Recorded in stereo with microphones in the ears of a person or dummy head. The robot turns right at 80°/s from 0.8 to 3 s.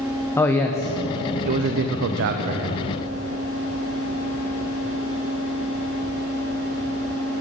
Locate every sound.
0.4 s a man speaking: 5° left (ahead or behind), 0.6 m; by 2.9 s 20° right (ahead or behind), 0.6 m